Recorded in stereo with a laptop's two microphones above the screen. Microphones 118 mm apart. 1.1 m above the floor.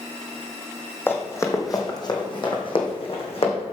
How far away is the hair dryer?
I don't hear a hair dryer.